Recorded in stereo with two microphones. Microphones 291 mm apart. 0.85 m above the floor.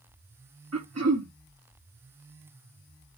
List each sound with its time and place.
0.7 s throat clearing: 60° right (ahead or behind), 1.3 m